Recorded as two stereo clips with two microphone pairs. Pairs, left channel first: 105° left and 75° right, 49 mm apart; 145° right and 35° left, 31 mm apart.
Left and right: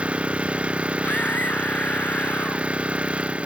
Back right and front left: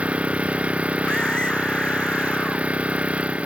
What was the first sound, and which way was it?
An engine running, 10° right.